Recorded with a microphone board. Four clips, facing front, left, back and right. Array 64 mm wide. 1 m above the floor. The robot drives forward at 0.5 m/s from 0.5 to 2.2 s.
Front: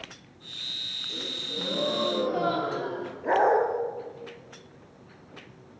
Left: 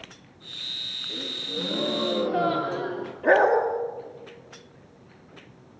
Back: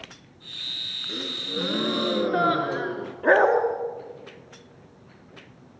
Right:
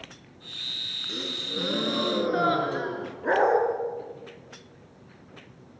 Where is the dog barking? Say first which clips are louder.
Left 3 dB, back 4 dB; 170° left, 3.5 m.